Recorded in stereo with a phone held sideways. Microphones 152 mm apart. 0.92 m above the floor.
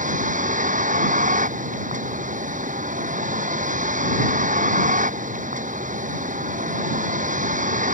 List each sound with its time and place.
0.0 s a vehicle: 55° right (ahead or behind)